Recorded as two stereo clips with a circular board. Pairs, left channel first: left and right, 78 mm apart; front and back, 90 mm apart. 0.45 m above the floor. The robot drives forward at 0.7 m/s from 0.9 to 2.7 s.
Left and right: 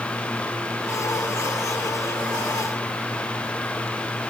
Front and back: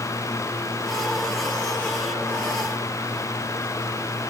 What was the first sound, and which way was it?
Only background noise.